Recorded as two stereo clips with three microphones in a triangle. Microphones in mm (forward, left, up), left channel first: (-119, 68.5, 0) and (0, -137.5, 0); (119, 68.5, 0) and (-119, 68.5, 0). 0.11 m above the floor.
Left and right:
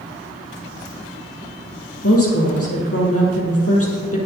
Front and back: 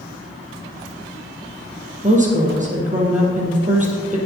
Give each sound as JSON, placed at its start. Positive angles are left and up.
{"t": 2.0, "sound": "a woman speaking", "azimuth_deg": 125, "distance_m": 3.0}